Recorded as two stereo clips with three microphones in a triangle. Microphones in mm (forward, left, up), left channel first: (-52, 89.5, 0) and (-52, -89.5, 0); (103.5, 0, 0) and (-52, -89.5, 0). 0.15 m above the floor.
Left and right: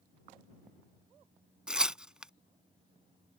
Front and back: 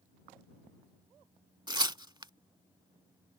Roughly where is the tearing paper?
Behind.